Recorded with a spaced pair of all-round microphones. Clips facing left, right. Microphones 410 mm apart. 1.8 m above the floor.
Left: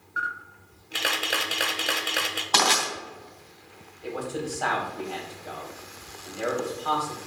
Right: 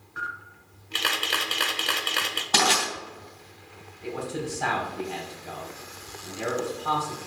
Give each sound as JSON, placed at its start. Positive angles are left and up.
{"t": 0.2, "sound": "a camera shutter", "side_deg": -10, "distance_m": 0.8}
{"t": 2.5, "sound": "crushing", "side_deg": -40, "distance_m": 2.5}
{"t": 4.0, "sound": "a man speaking", "side_deg": -35, "distance_m": 2.5}